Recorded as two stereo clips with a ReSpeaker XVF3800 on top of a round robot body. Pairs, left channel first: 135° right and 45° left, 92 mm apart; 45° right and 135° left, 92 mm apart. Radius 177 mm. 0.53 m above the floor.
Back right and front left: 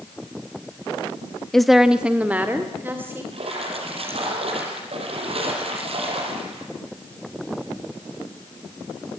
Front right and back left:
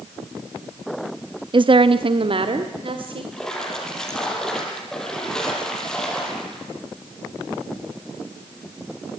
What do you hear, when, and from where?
1.5 s a woman speaking: 140° left, 1.1 m; by 3.2 s 110° left, 3 m
3.3 s a splash: 40° left, 7 m